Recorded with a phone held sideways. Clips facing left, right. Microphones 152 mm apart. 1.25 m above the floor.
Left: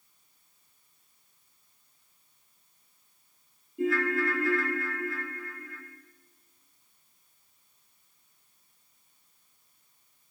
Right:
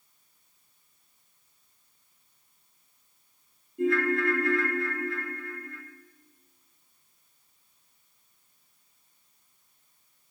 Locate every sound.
3.8 s a ringtone: centre (ahead or behind), 0.7 m